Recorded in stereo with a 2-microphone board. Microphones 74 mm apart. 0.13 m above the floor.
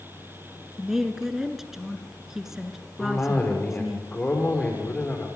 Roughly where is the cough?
Left.